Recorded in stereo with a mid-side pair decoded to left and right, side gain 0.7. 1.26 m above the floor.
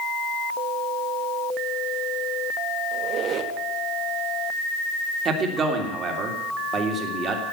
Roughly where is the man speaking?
Ahead right.